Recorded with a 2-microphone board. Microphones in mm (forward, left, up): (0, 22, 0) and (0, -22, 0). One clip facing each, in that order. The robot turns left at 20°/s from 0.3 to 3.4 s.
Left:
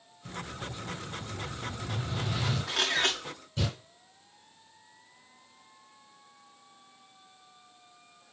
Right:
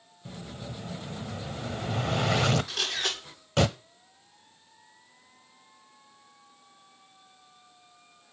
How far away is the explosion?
About 0.8 m.